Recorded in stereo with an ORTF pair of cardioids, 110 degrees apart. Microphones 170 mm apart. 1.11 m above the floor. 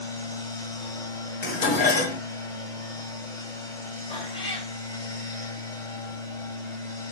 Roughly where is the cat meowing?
Ahead left.